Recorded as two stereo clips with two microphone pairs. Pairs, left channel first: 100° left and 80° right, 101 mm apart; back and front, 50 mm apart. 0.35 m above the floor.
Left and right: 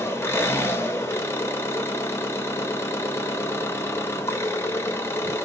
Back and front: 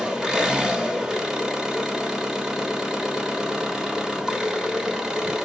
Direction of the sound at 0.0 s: 65° left.